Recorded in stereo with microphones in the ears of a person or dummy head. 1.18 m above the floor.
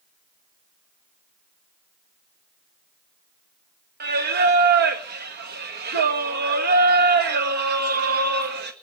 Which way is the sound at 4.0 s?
50° right (ahead or behind).